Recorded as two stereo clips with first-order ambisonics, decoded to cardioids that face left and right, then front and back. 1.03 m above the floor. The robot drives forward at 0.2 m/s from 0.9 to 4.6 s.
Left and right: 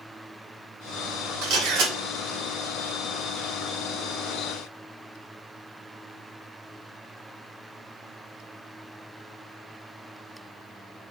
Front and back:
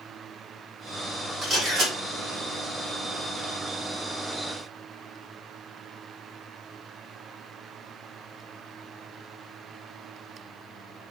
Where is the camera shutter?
110° right, 1.8 m; by 1.9 s 115° right, 1.8 m.